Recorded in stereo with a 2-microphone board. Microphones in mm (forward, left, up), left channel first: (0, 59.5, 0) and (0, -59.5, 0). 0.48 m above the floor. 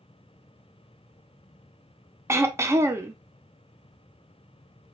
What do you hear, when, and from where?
2.3 s throat clearing: 20° right (ahead or behind), 0.6 m